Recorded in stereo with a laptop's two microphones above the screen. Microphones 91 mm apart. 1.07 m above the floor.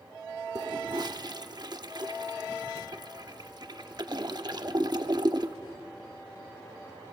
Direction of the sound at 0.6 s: 50° right (ahead or behind).